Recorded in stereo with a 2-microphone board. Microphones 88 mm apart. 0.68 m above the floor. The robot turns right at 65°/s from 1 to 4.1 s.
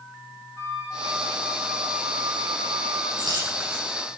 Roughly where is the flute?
Behind left.